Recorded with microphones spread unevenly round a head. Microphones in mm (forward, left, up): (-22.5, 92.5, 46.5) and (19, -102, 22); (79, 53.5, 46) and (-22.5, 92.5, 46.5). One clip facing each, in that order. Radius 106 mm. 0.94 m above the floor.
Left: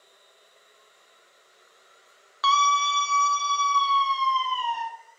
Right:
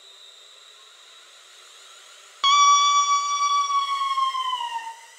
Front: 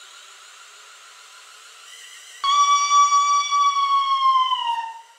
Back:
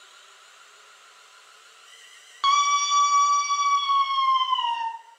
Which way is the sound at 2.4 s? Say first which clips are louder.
Right 4 dB, front 4 dB; 120° right.